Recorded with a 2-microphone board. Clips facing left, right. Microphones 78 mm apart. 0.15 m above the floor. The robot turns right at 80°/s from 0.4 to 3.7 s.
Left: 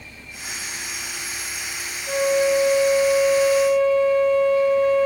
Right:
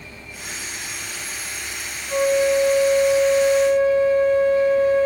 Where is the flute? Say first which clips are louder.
Right 1 dB; 85° left, 2.0 m; by 5.1 s 140° right, 2.0 m.